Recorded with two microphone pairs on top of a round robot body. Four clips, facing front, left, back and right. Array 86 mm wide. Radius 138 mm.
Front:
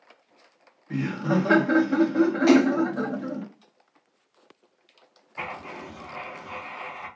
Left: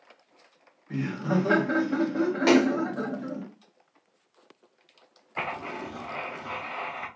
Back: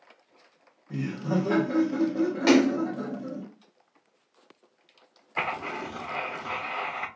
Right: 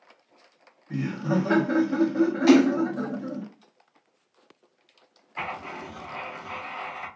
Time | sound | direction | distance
0.9 | laughter | 20° left | 1.0 m
2.5 | a splash | 115° left | 2 m
5.4 | writing | 155° left | 0.7 m